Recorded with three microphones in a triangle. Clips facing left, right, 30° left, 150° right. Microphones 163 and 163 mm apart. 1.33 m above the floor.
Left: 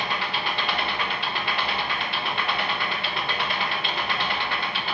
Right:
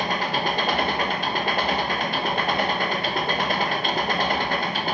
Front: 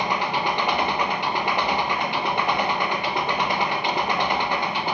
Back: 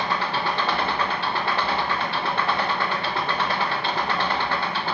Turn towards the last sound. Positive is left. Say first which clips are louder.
# right 5 dB, front 1 dB
turn(degrees=-45)